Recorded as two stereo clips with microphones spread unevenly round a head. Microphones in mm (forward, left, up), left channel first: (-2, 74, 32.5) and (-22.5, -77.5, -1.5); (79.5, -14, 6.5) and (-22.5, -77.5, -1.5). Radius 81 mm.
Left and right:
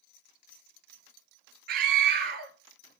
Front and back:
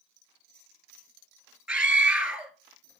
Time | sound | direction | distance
1.7 | a scream | 60° right | 1.7 m